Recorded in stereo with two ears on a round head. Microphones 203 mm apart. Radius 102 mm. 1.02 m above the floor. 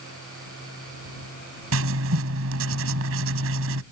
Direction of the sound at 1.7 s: 70° right (ahead or behind).